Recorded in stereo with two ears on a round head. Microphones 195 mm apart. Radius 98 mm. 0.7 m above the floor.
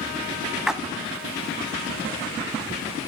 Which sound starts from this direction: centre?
A splash, at 0.7 s.